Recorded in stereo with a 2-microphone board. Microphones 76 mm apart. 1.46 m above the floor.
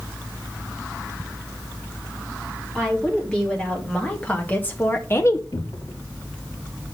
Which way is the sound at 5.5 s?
70° left (ahead or behind).